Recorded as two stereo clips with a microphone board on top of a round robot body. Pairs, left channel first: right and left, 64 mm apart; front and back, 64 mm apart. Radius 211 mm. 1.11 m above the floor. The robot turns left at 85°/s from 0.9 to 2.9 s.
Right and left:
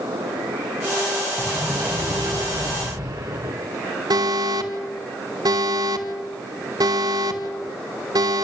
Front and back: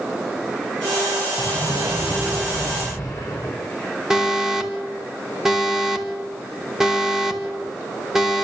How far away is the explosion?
About 1.0 m.